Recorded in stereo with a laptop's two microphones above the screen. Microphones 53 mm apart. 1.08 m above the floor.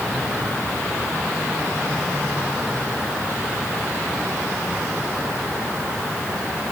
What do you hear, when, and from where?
Only background noise.